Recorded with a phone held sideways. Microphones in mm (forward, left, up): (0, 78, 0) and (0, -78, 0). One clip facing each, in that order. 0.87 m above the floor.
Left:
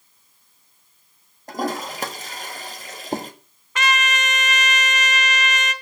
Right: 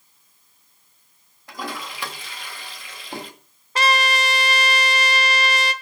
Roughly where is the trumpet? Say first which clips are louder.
Right 3 dB; right.